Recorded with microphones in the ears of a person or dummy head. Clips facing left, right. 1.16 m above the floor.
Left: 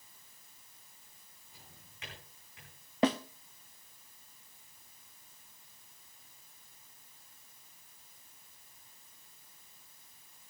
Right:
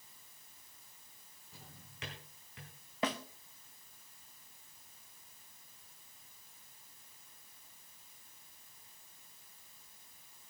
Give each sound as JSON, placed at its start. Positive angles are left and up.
{"t": 1.5, "sound": "a drawer", "side_deg": -55, "distance_m": 4.0}
{"t": 3.0, "sound": "a snare drum", "side_deg": 30, "distance_m": 0.6}